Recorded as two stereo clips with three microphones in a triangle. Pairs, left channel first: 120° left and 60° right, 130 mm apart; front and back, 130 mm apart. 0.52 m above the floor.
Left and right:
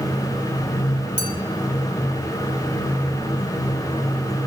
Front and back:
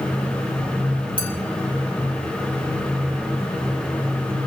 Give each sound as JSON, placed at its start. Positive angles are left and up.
{"t": 1.2, "sound": "a clink", "azimuth_deg": -50, "distance_m": 2.5}